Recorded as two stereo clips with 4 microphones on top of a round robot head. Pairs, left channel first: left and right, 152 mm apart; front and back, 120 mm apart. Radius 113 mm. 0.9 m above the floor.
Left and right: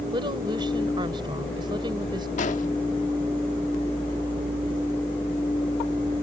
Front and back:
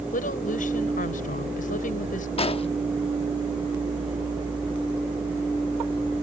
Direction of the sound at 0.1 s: 25° right.